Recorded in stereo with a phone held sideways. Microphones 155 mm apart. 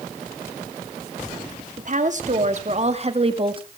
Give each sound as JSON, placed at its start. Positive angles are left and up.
{"t": 1.8, "sound": "a woman speaking", "side_deg": -55, "distance_m": 2.0}